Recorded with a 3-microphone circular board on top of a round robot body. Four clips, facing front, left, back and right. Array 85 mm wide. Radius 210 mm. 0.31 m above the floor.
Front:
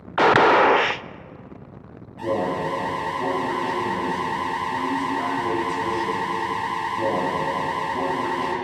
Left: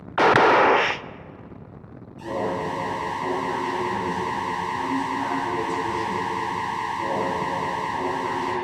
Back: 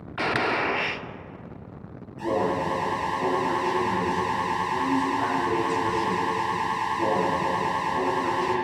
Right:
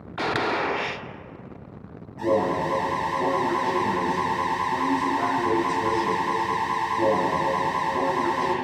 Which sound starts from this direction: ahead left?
A gunshot, at 0.2 s.